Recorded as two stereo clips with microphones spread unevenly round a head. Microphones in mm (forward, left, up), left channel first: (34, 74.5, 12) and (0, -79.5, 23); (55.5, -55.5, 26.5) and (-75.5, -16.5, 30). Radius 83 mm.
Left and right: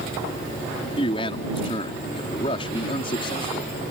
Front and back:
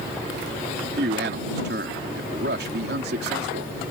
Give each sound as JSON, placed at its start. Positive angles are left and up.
{"t": 1.0, "sound": "a man speaking", "azimuth_deg": 140}